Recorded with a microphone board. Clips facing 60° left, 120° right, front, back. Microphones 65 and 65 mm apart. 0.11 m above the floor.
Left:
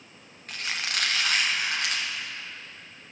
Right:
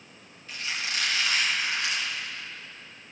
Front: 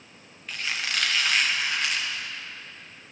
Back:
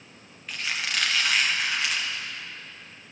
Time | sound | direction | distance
0.5 | a squeak | 90° left | 2.5 m